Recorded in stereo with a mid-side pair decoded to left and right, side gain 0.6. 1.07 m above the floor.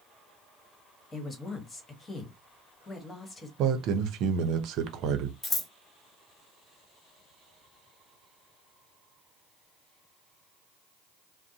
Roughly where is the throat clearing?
I don't hear throat clearing.